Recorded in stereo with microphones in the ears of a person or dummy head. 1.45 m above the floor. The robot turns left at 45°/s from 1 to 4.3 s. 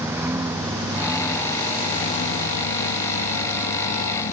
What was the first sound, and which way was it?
A lawn mower, 170° right.